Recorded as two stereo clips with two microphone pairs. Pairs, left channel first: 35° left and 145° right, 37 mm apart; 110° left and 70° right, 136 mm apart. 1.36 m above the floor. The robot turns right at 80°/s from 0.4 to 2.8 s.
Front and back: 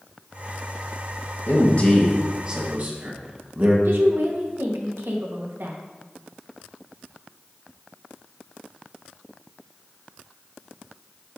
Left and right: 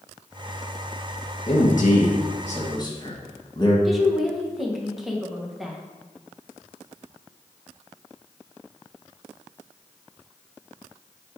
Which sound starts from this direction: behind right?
A woman speaking, at 3.9 s.